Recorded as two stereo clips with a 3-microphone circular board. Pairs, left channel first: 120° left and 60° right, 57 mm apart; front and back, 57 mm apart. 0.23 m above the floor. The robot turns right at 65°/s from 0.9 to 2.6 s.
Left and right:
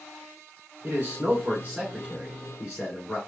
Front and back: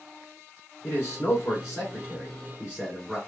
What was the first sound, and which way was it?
A man speaking, 45° right.